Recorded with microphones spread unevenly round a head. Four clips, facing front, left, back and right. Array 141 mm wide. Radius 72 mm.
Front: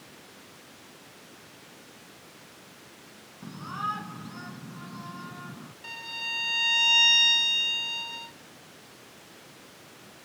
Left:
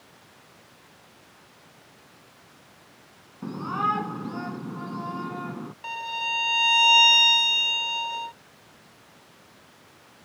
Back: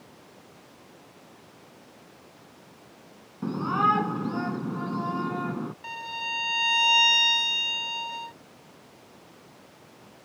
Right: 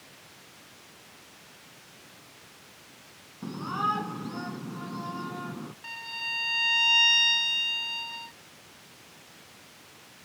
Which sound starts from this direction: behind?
A shout, at 3.4 s.